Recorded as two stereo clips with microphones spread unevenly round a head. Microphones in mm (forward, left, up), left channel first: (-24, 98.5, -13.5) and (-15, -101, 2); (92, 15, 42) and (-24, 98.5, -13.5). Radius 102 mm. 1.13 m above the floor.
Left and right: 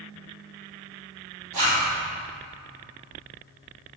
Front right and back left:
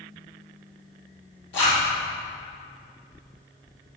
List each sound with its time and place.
1.5 s a zipper: 60° right, 2.5 m